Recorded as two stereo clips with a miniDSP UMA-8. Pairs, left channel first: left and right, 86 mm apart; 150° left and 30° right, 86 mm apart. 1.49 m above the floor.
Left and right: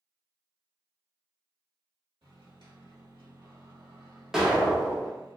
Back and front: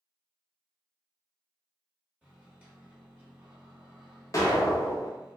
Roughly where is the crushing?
No crushing in this recording.